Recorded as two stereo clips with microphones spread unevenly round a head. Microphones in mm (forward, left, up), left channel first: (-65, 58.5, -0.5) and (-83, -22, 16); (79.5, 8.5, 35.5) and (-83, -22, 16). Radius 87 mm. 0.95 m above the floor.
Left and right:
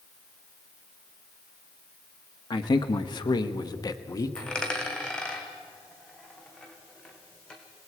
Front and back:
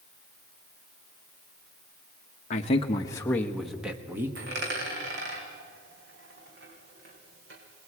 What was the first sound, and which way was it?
A man speaking, 60° left.